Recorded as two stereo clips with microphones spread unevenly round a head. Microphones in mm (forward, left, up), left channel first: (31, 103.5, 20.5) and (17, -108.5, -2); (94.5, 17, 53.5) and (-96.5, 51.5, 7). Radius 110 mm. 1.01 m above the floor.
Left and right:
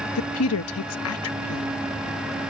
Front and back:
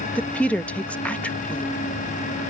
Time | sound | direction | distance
0.1 | a woman speaking | 80° left | ?